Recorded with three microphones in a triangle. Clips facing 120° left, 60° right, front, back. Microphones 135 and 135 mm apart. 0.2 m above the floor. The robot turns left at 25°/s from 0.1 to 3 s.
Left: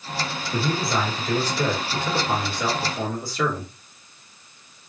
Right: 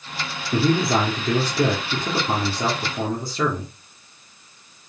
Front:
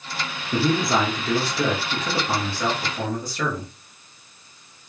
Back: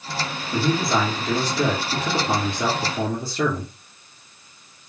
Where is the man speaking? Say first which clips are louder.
Right 6 dB, front 1 dB; 65° right, 3.5 m; by 3.7 s 125° right, 3.5 m.